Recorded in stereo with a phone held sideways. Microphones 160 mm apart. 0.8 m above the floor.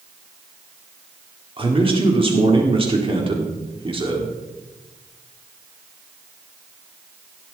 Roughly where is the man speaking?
Right.